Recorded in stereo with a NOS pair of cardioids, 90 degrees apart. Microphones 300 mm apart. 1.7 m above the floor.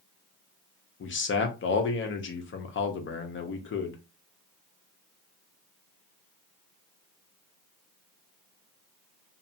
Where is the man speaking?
40° left, 0.9 m.